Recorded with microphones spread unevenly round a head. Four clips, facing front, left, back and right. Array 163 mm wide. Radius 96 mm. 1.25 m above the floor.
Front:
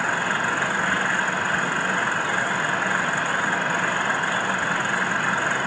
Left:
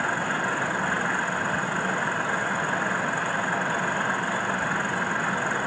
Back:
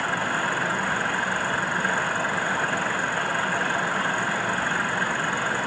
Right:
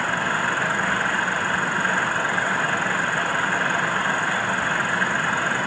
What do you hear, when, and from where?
Only background noise.